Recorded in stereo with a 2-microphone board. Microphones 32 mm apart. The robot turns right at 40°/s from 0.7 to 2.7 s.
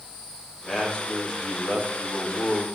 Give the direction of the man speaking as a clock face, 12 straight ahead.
11 o'clock.